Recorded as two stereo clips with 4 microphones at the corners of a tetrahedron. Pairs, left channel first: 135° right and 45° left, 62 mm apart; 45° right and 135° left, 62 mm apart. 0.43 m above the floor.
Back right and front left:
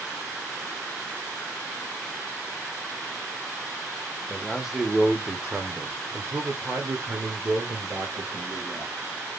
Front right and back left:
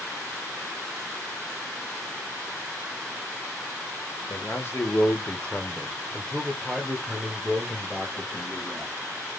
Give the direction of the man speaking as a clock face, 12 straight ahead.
2 o'clock.